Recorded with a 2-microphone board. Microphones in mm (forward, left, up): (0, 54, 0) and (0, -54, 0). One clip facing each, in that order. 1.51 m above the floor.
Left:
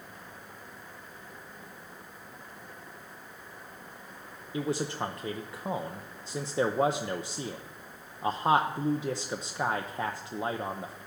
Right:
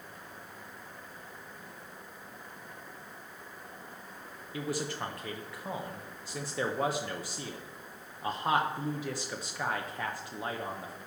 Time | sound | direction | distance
4.5 | a man speaking | 25° left (ahead or behind) | 0.7 m